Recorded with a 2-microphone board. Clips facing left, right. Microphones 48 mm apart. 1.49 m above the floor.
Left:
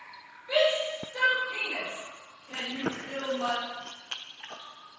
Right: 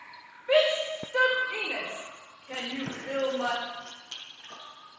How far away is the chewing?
About 1.0 m.